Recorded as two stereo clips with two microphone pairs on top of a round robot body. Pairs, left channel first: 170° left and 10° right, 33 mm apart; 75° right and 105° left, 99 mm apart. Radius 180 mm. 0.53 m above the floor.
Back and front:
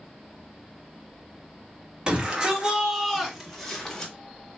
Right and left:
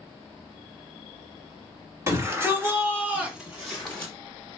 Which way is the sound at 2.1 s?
45° left.